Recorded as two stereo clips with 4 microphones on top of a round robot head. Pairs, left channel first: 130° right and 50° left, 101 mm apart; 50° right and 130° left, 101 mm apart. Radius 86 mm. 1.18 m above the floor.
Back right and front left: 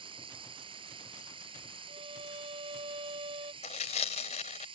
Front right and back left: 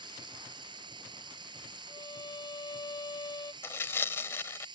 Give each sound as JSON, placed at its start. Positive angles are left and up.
{"t": 0.0, "sound": "running water", "azimuth_deg": 85}
{"t": 1.9, "sound": "a violin", "azimuth_deg": 5}
{"t": 3.6, "sound": "tearing paper", "azimuth_deg": -110}